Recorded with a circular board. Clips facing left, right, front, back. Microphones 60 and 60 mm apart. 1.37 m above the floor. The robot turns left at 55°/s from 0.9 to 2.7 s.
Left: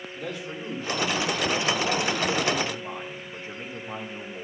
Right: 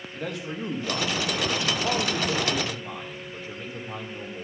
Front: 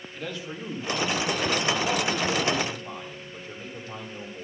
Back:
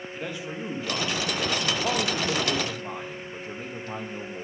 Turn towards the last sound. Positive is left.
turn(degrees=155)